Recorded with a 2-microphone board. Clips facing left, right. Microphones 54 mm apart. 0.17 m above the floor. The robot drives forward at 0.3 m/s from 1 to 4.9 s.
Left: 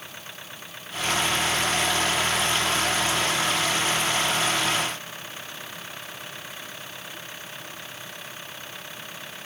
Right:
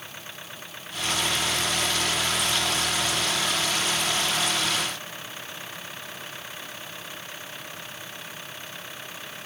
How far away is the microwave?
I don't hear a microwave.